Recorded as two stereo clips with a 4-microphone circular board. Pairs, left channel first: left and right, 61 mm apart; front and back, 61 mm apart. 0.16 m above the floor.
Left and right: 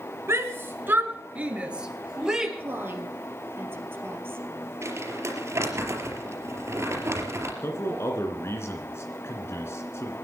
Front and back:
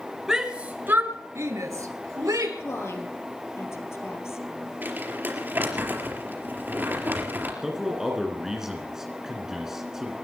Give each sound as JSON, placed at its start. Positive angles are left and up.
{"t": 0.3, "sound": "a shout", "azimuth_deg": -100, "distance_m": 1.5}
{"t": 2.6, "sound": "a woman speaking", "azimuth_deg": -40, "distance_m": 3.5}
{"t": 4.8, "sound": "crumpling", "azimuth_deg": -130, "distance_m": 4.0}
{"t": 7.6, "sound": "a man speaking", "azimuth_deg": 100, "distance_m": 2.5}